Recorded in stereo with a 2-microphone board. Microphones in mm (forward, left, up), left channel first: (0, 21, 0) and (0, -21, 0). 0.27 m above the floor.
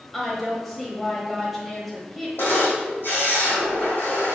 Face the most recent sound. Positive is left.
turn(degrees=60)  # may be behind; listen again after turning